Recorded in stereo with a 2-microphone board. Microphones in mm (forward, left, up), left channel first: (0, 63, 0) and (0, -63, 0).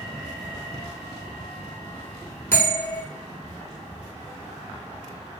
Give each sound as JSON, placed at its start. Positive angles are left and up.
{"t": 2.5, "sound": "a bell", "side_deg": 20, "distance_m": 1.3}